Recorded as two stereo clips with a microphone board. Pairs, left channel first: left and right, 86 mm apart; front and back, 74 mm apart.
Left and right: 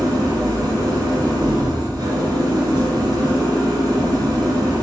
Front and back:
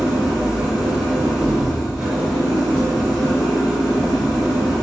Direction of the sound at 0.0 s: 100° right.